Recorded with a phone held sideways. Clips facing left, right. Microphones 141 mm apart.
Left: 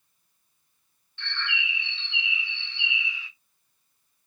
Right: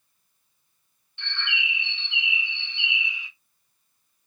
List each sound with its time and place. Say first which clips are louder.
1.2 s a bird: even; 20° right (ahead or behind), 1.2 m